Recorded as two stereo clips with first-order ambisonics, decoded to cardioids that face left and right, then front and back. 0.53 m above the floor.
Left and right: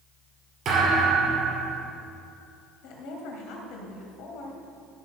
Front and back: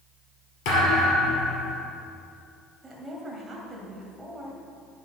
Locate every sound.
0.7 s a thud: 25° right, 3.5 m
2.8 s a woman speaking: 100° left, 2.5 m